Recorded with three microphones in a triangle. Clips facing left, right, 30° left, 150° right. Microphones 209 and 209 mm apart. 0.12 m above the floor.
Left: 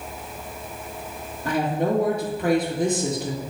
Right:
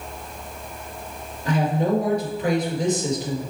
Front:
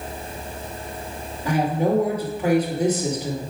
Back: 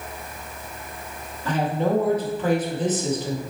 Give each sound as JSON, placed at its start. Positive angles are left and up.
{"t": 1.4, "sound": "a woman speaking", "azimuth_deg": 105, "distance_m": 2.0}